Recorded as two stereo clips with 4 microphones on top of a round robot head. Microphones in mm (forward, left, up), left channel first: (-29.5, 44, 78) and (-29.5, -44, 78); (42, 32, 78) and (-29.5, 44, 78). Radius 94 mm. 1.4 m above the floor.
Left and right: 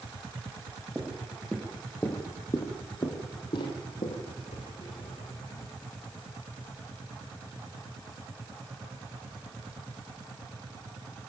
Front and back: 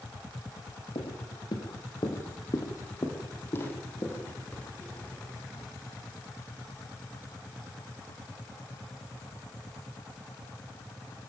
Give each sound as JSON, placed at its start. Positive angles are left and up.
{"t": 0.9, "sound": "footsteps", "azimuth_deg": -5, "distance_m": 2.0}